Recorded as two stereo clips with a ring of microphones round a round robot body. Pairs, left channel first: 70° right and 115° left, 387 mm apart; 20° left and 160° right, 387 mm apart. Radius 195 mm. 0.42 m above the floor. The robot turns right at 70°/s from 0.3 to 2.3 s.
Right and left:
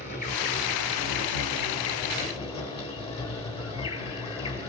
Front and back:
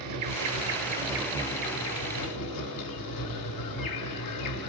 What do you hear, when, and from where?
0.0 s an insect: 135° right, 2.5 m; by 4.7 s 5° left, 2.5 m